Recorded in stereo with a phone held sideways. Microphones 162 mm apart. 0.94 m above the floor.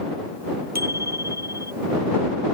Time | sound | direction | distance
0.8 | a bicycle bell | 75° right (ahead or behind) | ?